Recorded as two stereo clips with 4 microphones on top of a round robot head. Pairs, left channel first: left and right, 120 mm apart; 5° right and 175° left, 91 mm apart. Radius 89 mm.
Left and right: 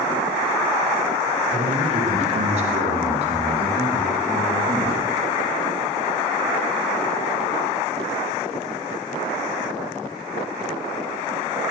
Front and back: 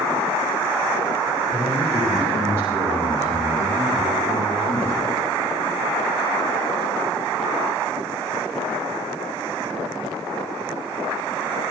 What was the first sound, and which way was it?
A man speaking, 100° right.